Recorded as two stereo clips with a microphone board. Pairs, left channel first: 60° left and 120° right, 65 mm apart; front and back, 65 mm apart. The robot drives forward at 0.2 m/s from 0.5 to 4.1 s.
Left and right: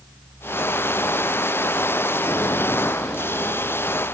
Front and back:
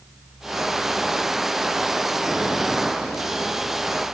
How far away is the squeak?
I don't hear a squeak.